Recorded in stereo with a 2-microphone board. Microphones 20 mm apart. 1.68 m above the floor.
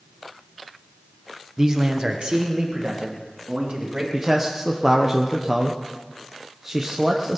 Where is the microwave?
No microwave in this recording.